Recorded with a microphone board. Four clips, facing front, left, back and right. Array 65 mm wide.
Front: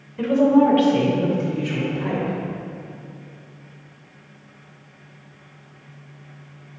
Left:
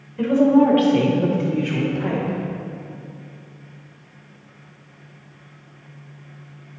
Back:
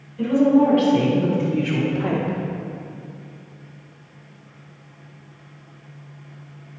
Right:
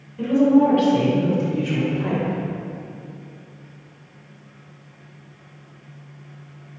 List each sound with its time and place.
0.2 s a woman speaking: 40° left, 1.9 m; by 2.4 s 165° left, 1.8 m